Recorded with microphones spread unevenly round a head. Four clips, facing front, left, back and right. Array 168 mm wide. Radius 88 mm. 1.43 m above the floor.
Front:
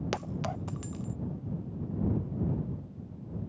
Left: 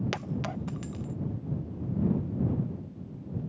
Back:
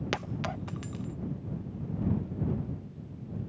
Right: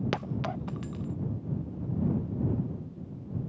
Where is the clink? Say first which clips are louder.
Right 1 dB, back 2 dB; 40° right.